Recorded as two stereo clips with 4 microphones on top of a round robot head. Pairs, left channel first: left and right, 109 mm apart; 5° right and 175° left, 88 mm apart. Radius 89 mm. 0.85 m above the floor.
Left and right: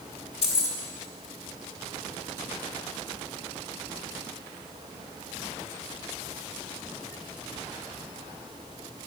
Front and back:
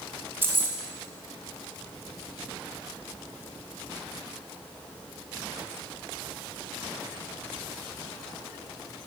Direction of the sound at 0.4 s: 110° left.